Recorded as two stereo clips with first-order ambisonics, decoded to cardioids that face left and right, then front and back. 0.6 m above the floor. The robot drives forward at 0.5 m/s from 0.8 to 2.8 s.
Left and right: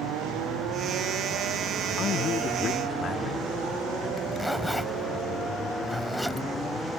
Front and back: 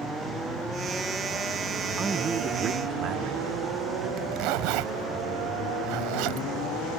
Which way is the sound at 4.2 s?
Straight behind.